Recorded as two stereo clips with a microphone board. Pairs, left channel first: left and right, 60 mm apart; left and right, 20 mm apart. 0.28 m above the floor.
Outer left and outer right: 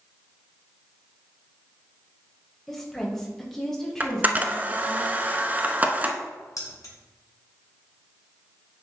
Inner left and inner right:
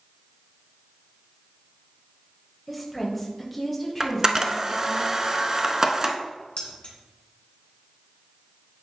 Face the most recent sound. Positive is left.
turn(degrees=65)  # may be behind; listen again after turning